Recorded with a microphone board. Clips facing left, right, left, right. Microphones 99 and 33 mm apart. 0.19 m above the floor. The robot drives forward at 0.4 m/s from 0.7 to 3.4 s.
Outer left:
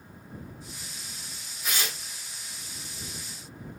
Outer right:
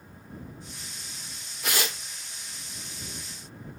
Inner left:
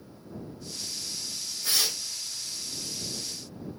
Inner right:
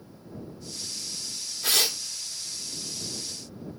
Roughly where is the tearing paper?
Right.